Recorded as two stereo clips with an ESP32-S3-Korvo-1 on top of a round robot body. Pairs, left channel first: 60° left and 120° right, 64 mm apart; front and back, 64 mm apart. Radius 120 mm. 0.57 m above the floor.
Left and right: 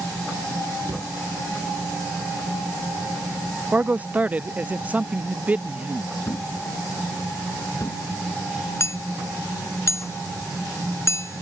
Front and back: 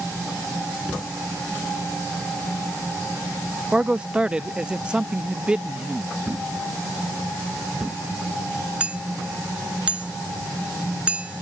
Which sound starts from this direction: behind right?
A man speaking, at 3.7 s.